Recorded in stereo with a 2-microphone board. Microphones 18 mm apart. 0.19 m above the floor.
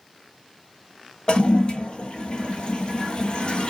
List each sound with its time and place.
1.3 s a toilet flushing: 55° left (ahead or behind), 0.6 m